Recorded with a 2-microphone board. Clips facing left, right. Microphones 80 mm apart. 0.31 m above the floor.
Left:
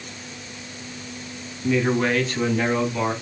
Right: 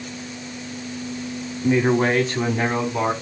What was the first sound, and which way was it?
A man speaking, 25° right (ahead or behind).